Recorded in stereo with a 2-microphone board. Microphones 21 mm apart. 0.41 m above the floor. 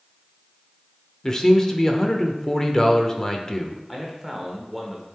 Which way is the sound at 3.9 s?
10° right (ahead or behind).